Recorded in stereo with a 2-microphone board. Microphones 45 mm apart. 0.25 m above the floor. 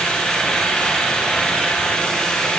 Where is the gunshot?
No gunshot in this recording.